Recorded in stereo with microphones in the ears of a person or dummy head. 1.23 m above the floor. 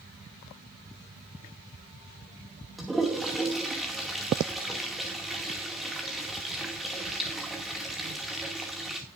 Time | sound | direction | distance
2.8 | a toilet flushing | 5° left (ahead or behind) | 2 m